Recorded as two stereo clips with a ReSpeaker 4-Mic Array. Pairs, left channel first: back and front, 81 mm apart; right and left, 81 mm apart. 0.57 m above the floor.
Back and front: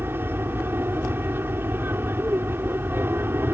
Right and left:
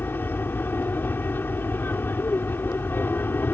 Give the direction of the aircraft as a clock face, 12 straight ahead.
1 o'clock.